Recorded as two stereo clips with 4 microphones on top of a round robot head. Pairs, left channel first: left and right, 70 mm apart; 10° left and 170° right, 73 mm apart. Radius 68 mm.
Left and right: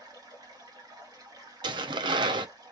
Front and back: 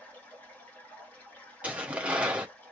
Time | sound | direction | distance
0.0 | running water | 65° right | 1.8 m
1.6 | tearing paper | 95° right | 0.7 m